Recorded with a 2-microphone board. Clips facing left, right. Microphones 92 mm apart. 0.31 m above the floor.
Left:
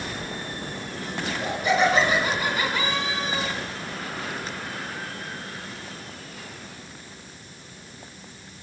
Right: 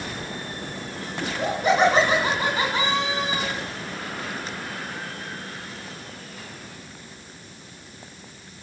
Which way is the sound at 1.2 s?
45° right (ahead or behind).